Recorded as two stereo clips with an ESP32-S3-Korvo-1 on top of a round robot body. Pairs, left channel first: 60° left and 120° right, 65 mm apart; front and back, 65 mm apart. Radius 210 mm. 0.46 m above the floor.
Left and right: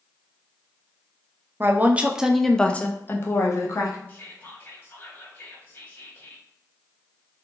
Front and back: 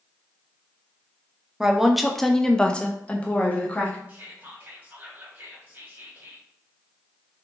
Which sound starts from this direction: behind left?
Whispering, at 4.1 s.